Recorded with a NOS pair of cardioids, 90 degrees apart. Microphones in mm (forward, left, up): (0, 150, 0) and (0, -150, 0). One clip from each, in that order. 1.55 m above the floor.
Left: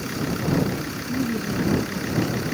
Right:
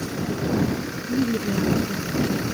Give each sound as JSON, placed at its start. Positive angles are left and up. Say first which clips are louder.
{"t": 1.1, "sound": "a woman speaking", "louder": "right 3 dB", "azimuth_deg": -25}